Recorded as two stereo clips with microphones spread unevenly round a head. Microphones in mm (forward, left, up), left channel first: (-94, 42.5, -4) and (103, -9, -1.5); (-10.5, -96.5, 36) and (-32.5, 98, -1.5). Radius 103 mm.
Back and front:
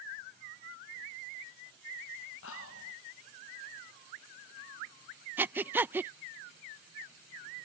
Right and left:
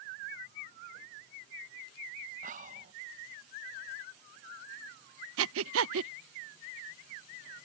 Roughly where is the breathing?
Ahead left.